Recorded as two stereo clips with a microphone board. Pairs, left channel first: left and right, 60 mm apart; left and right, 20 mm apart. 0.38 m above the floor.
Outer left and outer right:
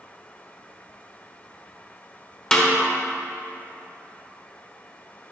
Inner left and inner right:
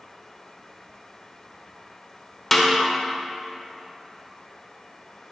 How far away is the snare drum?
About 0.9 m.